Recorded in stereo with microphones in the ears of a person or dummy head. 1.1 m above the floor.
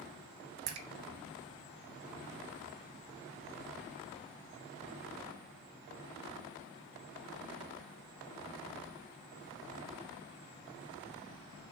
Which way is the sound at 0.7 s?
85° right.